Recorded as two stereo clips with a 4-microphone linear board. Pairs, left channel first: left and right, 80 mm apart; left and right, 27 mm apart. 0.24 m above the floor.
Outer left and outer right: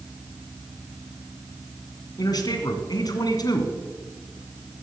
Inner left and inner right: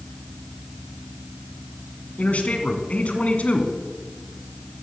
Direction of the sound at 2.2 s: 55° left (ahead or behind).